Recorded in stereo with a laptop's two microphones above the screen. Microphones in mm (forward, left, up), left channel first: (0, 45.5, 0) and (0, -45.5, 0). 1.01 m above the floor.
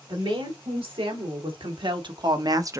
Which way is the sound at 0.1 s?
80° right.